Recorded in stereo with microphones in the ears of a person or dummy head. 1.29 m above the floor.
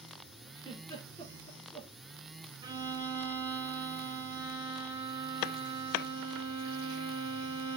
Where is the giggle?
25° left (ahead or behind), 3.5 m.